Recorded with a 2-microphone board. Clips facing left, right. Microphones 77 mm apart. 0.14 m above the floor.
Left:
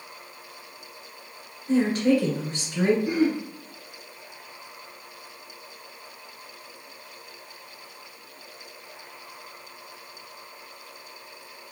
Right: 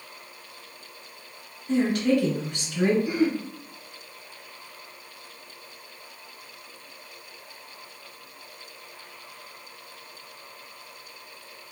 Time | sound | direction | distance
1.7 | a woman speaking | 35° left (ahead or behind) | 1.8 m
3.0 | throat clearing | 50° left (ahead or behind) | 2.0 m